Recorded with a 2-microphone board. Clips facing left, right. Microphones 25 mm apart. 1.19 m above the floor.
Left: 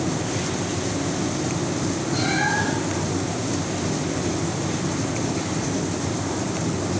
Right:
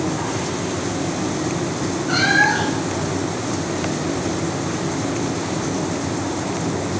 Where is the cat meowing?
65° right (ahead or behind), 5 m.